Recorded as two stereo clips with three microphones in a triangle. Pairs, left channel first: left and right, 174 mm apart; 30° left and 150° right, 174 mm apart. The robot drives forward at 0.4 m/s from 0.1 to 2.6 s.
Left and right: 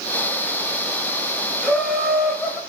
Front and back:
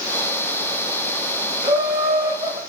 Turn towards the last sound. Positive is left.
turn(degrees=175)